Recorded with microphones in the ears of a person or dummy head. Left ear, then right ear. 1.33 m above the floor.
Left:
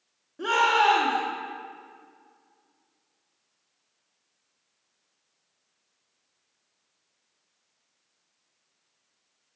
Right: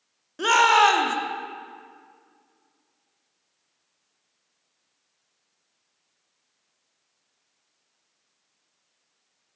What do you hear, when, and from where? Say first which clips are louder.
0.4 s a shout: right 4 dB; 70° right (ahead or behind), 0.9 m